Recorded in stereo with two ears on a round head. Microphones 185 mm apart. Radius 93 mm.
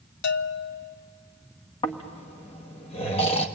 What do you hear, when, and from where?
0.2 s a bell: 60° left (ahead or behind), 0.8 m
1.8 s snoring: 30° left (ahead or behind), 1.2 m